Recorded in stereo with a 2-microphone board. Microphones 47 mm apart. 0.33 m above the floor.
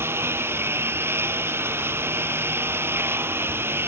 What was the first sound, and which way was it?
A lawn mower, 55° right (ahead or behind).